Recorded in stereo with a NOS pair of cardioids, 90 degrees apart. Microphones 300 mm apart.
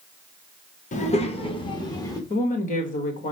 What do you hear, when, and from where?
0.9 s a child speaking: 25° left, 1.0 m; by 2.2 s 10° left, 1.8 m
2.3 s a woman speaking: 25° left, 1.5 m